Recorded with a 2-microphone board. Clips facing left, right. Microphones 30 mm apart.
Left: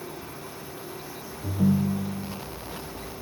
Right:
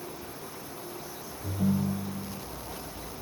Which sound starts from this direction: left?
A ringtone, at 1.4 s.